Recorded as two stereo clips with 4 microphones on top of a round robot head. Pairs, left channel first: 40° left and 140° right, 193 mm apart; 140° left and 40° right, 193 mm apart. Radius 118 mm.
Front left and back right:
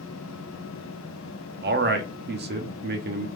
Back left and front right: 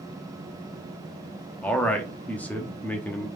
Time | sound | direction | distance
1.6 | a man speaking | 140° right | 0.9 m